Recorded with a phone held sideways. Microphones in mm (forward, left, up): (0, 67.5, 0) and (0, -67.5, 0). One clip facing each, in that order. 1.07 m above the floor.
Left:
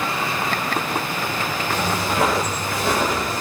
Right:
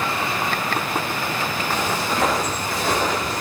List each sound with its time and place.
1.7 s footsteps: 60° left (ahead or behind), 7 m; by 3.4 s 55° left (ahead or behind), 8.5 m